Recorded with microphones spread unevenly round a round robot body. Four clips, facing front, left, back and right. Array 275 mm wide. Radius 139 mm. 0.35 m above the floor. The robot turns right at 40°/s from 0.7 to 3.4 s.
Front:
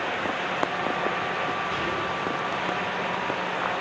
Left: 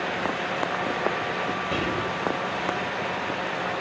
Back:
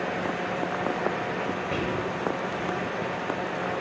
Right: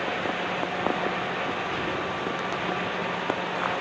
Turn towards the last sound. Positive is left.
turn(degrees=-165)